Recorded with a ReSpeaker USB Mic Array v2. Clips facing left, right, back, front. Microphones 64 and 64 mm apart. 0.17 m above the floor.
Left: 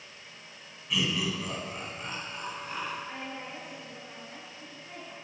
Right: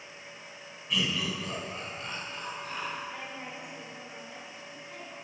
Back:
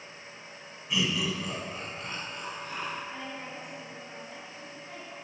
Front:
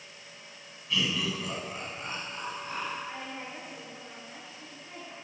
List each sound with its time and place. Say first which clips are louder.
0.9 s laughter: left 1 dB, back 1 dB; 170° left, 1.1 m; by 3.0 s 25° left, 1.6 m
3.1 s a woman speaking: left 1 dB, even; 50° left, 2.5 m